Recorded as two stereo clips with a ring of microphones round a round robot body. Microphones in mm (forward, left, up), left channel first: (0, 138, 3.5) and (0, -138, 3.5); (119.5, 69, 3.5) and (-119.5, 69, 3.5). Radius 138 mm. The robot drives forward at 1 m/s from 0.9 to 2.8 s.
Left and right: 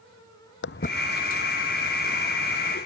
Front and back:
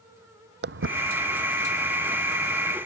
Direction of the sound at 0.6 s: 135° left.